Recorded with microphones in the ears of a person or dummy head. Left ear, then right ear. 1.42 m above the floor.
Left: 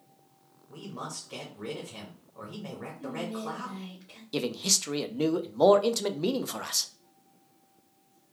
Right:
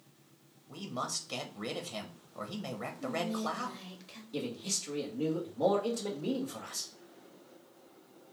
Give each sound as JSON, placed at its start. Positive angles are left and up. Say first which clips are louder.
{"t": 0.7, "sound": "a man speaking", "louder": "right 3 dB", "side_deg": -50, "distance_m": 0.7}
{"t": 3.0, "sound": "whispering", "louder": "right 1 dB", "side_deg": -40, "distance_m": 0.7}
{"t": 4.3, "sound": "a man speaking", "louder": "left 9 dB", "side_deg": 70, "distance_m": 0.6}